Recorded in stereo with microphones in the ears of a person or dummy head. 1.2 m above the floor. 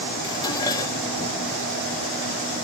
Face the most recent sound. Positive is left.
turn(degrees=25)  # may be behind; listen again after turning